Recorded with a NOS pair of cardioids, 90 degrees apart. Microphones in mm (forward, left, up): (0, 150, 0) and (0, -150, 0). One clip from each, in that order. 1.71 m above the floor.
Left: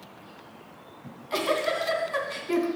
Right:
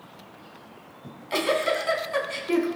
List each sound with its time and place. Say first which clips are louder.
1.0 s a giggle: right 2 dB; 20° right, 2.5 m